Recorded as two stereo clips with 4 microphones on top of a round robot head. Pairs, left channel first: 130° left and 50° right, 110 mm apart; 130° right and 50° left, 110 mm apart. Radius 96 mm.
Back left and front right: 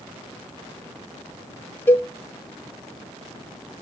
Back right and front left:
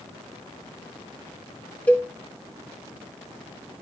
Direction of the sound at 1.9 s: 170° left.